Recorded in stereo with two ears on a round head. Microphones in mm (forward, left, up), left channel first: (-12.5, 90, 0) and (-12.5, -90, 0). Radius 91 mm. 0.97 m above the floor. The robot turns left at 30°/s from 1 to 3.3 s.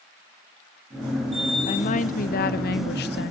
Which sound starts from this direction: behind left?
A woman speaking, at 1.7 s.